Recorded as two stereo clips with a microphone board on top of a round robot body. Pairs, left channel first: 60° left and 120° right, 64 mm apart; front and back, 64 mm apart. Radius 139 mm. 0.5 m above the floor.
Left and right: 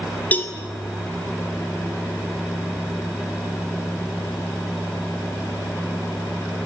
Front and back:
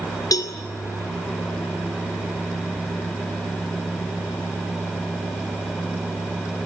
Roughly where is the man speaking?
No man speaking in this recording.